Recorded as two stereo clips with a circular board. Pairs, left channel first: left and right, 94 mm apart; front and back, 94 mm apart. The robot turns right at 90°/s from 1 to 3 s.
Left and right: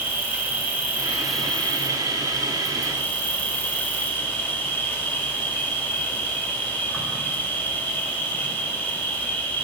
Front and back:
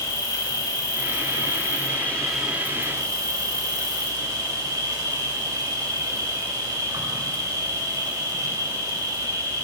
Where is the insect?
30° right, 2.5 m; by 9.7 s 150° left, 2.5 m.